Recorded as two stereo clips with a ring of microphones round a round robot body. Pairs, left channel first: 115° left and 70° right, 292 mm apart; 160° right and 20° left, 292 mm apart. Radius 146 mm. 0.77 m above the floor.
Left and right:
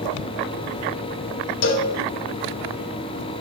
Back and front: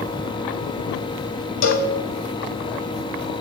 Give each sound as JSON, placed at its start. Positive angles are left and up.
{"t": 1.6, "sound": "a cowbell", "azimuth_deg": 165, "distance_m": 0.8}